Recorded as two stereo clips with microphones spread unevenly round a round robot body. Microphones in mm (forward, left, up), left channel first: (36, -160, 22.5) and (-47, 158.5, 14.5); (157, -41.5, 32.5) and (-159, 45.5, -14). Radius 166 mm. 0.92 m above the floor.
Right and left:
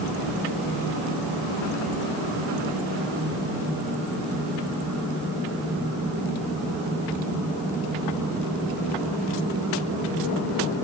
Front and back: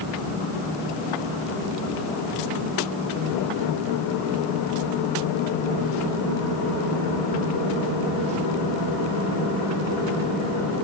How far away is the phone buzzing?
I don't hear a phone buzzing.